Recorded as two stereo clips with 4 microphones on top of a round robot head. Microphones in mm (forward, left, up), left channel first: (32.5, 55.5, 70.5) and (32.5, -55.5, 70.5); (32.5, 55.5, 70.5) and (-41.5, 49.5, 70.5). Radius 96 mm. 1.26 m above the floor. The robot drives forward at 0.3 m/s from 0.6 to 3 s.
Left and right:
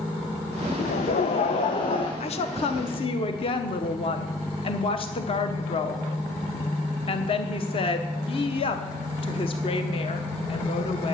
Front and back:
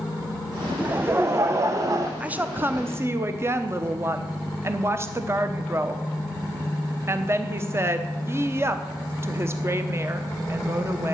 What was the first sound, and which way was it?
Laughter, 115° left.